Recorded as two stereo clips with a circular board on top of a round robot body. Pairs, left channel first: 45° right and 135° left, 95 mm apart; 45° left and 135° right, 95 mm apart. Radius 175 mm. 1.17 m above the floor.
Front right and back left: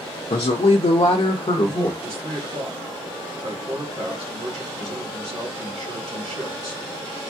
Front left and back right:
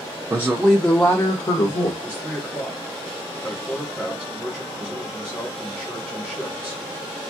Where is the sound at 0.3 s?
70° right, 0.6 m; by 1.9 s 10° left, 0.8 m.